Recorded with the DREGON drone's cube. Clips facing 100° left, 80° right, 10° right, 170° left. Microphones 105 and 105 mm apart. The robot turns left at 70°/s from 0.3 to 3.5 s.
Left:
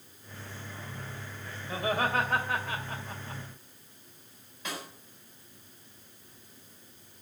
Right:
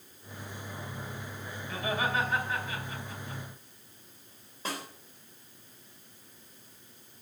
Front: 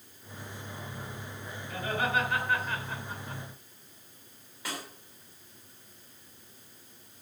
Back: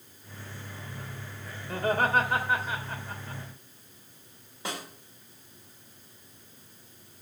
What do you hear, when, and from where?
1.7 s laughter: 160° left, 3 m; by 3.4 s 40° left, 3 m
4.7 s a snare drum: 130° right, 3 m